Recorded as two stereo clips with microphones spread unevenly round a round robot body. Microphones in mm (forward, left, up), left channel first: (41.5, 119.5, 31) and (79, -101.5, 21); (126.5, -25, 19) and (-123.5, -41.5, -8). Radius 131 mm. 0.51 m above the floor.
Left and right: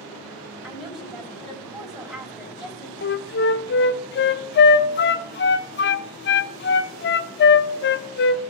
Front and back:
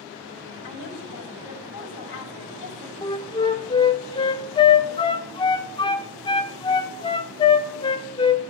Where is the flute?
75° left, 0.5 m.